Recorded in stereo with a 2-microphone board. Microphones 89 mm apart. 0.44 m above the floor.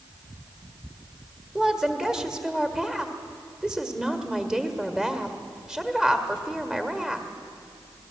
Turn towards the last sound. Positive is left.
turn(degrees=-5)  # may be behind; listen again after turning